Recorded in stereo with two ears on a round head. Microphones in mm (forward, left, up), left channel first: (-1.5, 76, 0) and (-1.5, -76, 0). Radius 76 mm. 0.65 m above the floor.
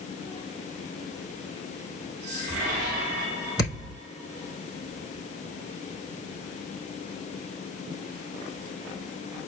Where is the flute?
I don't hear a flute.